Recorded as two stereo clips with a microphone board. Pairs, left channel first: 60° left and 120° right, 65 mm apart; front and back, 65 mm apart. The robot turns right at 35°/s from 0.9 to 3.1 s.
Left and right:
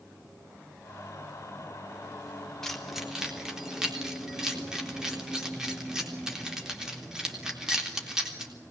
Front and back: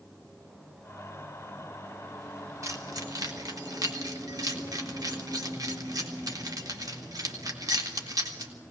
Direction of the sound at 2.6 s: 145° left.